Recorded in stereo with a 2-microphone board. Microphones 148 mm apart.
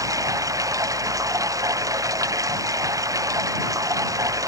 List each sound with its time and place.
0.0 s running water: 25° right (ahead or behind)